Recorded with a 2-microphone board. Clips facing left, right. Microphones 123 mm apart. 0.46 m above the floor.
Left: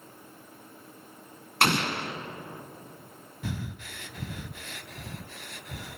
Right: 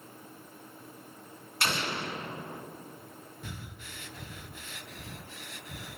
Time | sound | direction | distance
1.6 | an explosion | 65° left (ahead or behind) | 2.0 m
3.4 | breathing | 75° left (ahead or behind) | 0.7 m